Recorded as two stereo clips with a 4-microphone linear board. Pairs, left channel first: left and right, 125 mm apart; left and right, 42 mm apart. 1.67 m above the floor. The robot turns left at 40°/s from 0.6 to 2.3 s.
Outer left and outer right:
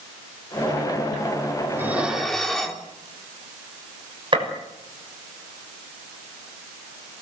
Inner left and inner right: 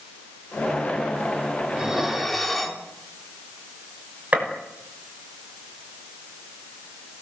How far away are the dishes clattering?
About 3 m.